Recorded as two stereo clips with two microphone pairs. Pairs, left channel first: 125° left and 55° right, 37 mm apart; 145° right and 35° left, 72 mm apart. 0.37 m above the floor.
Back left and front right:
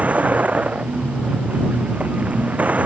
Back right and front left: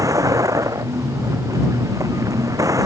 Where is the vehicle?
5° right.